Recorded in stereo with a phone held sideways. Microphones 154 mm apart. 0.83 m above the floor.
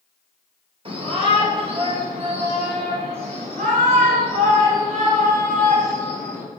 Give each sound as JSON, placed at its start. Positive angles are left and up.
{"t": 0.8, "sound": "a shout", "side_deg": -35, "distance_m": 4.0}